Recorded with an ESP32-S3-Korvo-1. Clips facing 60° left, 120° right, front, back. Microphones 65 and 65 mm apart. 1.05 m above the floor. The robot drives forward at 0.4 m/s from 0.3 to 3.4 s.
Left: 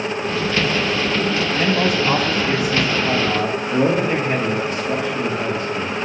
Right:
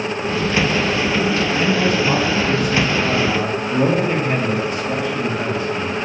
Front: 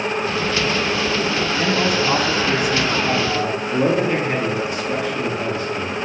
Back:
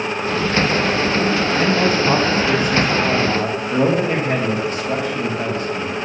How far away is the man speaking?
About 1.0 m.